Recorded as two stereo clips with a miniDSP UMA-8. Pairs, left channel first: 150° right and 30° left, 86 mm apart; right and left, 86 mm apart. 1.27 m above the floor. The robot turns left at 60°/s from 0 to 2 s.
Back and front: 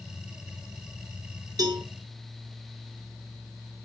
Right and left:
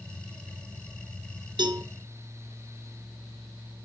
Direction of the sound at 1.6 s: 70° left.